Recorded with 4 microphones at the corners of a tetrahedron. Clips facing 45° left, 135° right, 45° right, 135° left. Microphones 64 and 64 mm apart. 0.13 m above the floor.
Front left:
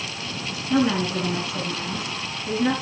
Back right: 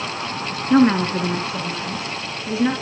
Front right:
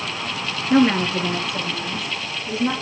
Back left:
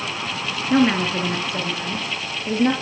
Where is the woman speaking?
135° right, 2 m; by 2.7 s 155° left, 3 m.